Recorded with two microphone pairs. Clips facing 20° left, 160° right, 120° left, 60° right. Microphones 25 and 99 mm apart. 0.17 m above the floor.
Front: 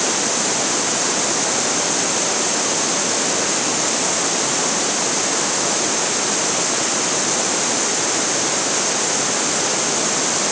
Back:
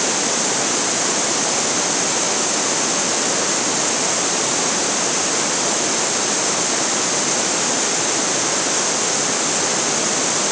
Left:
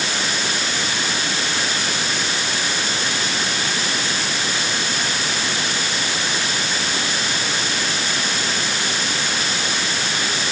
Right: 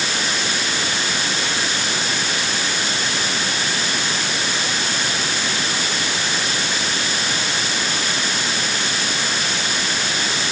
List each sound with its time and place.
Only background noise.